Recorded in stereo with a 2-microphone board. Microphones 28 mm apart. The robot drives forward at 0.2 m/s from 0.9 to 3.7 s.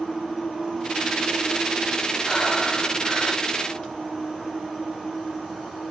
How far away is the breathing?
About 2.0 m.